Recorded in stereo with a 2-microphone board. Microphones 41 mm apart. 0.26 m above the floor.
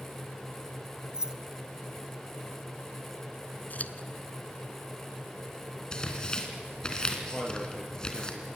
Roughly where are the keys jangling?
Centre.